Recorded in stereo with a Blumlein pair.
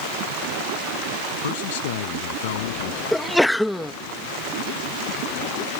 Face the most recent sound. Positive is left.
turn(degrees=0)